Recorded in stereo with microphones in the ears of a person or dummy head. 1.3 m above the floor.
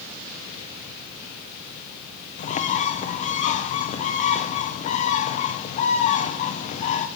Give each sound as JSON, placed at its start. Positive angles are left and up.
{"t": 2.4, "sound": "a bird", "side_deg": 35, "distance_m": 0.8}